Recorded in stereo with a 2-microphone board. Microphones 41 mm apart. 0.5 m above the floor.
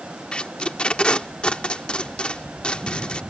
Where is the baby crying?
I don't hear a baby crying.